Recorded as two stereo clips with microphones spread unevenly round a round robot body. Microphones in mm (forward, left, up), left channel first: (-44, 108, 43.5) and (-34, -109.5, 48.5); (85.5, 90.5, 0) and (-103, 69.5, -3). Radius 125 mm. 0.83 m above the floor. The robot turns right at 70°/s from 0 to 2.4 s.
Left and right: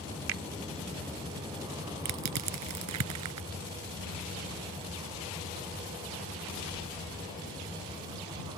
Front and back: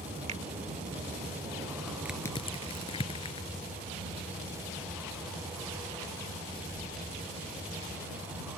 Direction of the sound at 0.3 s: 110° right.